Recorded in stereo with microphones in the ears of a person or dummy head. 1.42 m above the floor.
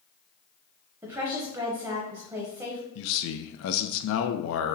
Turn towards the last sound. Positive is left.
turn(degrees=70)  # may be behind; listen again after turning